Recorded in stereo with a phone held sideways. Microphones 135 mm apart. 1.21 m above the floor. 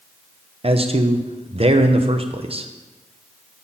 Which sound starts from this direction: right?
A man speaking, at 0.6 s.